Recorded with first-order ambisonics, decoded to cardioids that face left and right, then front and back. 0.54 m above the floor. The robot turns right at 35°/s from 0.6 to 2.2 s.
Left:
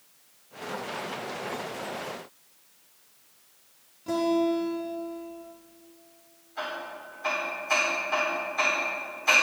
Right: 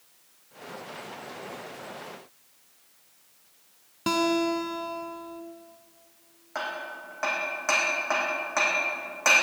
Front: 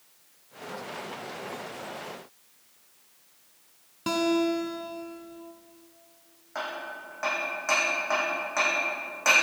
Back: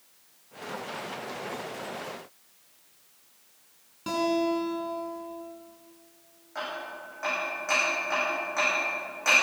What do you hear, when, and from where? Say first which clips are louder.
4.1 s a guitar: right 1 dB, front 1 dB; 70° right, 1.5 m
6.5 s hammering: right 1 dB, front 1 dB; 70° right, 7 m